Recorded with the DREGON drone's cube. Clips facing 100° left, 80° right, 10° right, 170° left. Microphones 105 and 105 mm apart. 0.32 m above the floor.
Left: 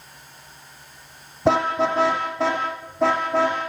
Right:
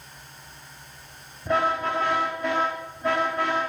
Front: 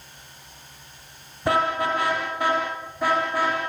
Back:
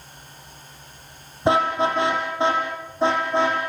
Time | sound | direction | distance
1.4 | a car horn | 100° left | 8 m